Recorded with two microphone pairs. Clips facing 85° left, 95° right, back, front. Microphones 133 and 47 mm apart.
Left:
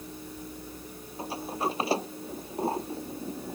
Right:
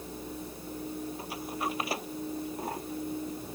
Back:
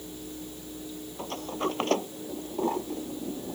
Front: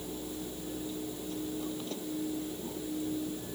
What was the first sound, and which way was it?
A sliding door, 150° left.